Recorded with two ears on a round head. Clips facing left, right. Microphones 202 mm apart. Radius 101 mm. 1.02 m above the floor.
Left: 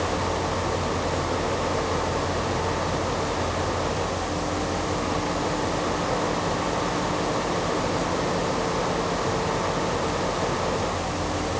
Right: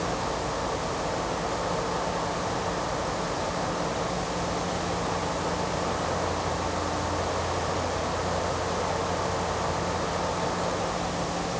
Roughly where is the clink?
I don't hear a clink.